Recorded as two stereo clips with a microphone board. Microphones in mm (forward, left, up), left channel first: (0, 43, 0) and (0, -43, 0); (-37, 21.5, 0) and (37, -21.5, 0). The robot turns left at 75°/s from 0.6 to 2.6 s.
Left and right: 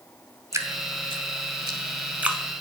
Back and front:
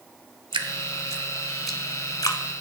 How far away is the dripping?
About 0.6 m.